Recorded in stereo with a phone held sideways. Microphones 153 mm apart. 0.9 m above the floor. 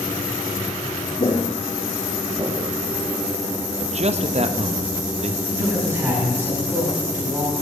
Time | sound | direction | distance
1.2 | footsteps | 40° left (ahead or behind) | 1.1 m
3.8 | a man speaking | 45° right (ahead or behind) | 0.7 m
5.5 | a man speaking | 15° right (ahead or behind) | 6.5 m